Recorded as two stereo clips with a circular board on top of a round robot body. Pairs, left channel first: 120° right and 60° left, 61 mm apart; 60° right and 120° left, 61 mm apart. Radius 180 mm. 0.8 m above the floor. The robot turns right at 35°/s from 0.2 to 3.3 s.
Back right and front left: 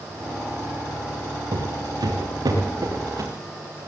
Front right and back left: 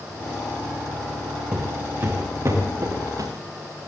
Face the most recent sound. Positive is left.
turn(degrees=100)